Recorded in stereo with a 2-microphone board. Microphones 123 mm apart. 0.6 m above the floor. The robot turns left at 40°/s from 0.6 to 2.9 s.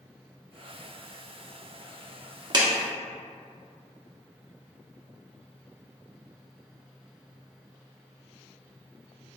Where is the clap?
40° right (ahead or behind), 0.6 m.